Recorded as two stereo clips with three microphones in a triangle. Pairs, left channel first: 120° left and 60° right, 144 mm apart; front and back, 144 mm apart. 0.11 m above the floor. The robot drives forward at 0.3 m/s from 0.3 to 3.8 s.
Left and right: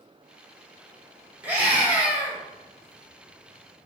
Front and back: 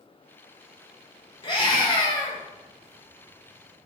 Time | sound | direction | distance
1.4 | a scream | 10° left | 1.9 m